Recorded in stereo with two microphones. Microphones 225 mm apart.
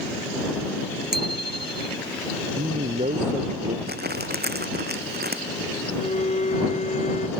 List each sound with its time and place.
1.1 s a bicycle bell: 45° right (ahead or behind)
2.6 s a man speaking: 35° right (ahead or behind)
3.9 s crumpling: 45° right (ahead or behind)
6.0 s a violin: 35° left (ahead or behind)